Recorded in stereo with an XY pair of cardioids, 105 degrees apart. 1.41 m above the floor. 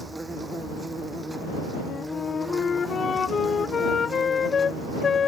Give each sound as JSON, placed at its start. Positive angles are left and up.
{"t": 0.0, "sound": "an insect", "azimuth_deg": -15}
{"t": 1.8, "sound": "a flute", "azimuth_deg": 40}